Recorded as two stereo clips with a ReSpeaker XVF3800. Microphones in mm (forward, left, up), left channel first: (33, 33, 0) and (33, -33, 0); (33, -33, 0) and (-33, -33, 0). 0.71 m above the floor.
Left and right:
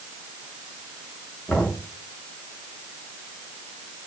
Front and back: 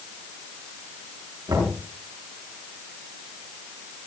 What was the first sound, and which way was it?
Knocking, 165° left.